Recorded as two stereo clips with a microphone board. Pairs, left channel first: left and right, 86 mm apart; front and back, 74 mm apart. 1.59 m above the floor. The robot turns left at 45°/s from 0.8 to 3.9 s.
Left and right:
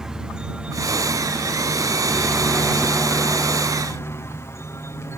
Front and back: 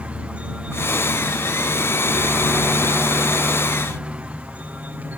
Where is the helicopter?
160° right; by 5.2 s 125° left.